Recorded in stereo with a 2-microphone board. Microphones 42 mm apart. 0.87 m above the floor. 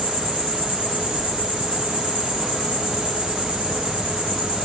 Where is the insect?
60° left (ahead or behind), 2 m.